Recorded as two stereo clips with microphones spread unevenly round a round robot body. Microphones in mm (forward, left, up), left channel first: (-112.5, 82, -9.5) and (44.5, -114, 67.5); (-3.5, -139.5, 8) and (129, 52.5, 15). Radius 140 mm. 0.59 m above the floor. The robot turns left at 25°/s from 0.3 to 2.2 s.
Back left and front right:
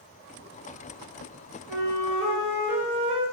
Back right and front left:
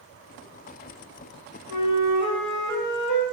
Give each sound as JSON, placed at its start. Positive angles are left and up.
{"t": 1.7, "sound": "a flute", "azimuth_deg": -105, "distance_m": 2.0}